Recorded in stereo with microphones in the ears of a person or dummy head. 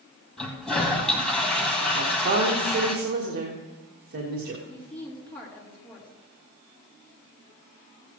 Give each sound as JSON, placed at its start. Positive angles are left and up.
{"t": 0.4, "sound": "a toilet flushing", "side_deg": 5, "distance_m": 2.0}
{"t": 1.9, "sound": "a woman speaking", "side_deg": -55, "distance_m": 1.6}
{"t": 4.7, "sound": "a woman speaking", "side_deg": 5, "distance_m": 4.0}